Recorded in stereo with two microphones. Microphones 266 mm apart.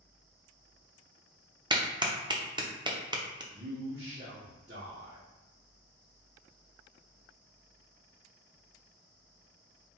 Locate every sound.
1.7 s a clap: 15° right (ahead or behind), 0.6 m
3.5 s a man speaking: 45° right (ahead or behind), 0.9 m